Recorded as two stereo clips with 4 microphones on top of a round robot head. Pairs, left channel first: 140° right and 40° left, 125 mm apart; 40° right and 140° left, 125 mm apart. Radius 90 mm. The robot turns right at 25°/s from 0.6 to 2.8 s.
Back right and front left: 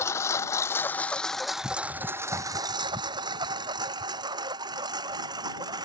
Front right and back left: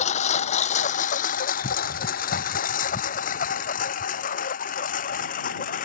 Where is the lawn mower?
70° right; by 5.8 s 20° right.